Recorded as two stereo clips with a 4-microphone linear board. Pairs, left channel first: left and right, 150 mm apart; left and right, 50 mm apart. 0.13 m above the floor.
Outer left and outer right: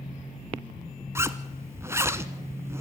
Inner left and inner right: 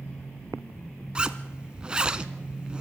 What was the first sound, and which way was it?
A zipper, 20° right (ahead or behind).